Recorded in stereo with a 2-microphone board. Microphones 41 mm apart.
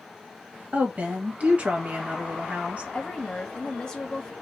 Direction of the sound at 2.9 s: 20° left (ahead or behind).